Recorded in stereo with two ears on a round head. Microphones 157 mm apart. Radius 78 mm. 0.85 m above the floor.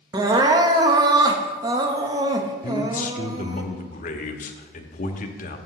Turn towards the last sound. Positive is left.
turn(degrees=50)  # may be behind; listen again after turning